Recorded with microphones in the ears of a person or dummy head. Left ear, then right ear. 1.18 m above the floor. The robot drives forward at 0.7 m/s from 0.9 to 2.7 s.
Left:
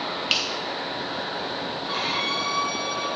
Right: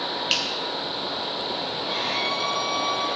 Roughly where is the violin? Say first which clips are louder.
Left 1 dB; centre.